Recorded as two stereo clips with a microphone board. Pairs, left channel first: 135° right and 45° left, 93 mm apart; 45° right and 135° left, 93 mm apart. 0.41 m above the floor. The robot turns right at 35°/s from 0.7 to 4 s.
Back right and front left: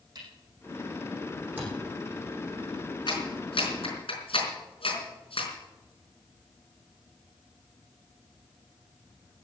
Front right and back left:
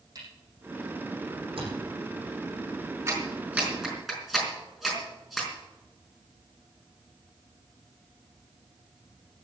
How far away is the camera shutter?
About 7.5 m.